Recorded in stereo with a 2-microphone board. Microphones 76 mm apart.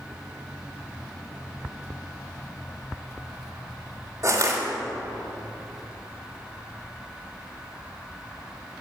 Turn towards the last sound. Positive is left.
turn(degrees=-45)  # may be behind; listen again after turning